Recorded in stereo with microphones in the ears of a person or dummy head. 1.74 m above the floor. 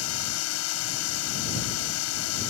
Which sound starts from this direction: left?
A drone, at 0.0 s.